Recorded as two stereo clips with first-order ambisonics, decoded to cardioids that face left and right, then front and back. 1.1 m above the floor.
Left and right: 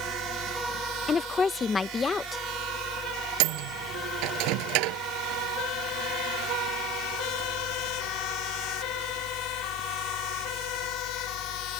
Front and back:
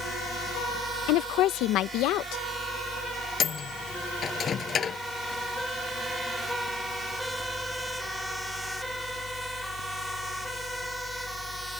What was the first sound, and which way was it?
A woman speaking, 20° left.